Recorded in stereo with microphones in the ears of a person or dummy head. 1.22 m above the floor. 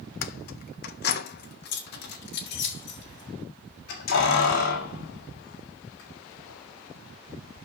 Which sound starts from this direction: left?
Keys jangling, at 0.2 s.